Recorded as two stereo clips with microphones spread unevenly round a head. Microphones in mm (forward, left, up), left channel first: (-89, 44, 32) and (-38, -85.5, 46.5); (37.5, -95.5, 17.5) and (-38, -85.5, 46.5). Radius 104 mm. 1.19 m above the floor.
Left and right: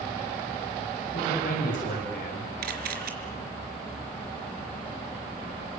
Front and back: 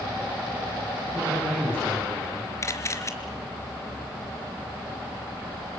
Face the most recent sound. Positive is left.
turn(degrees=-60)